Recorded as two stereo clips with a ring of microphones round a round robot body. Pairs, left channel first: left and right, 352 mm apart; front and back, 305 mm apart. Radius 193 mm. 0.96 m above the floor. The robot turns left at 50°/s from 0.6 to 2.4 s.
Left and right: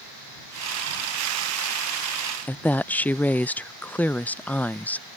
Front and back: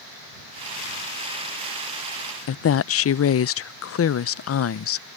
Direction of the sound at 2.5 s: 5° left.